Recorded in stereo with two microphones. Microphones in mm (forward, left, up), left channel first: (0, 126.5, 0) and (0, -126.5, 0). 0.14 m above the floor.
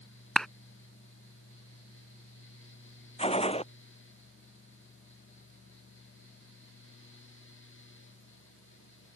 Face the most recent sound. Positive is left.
turn(degrees=25)  # may be behind; listen again after turning